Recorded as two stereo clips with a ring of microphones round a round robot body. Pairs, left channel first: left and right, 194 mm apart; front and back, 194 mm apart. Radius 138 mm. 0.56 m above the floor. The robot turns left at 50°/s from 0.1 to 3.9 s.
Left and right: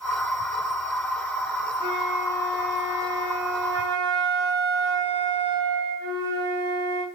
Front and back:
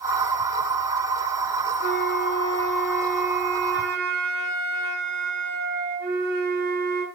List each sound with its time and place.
1.8 s a flute: 30° right, 3.5 m; by 7.0 s 135° right, 3.5 m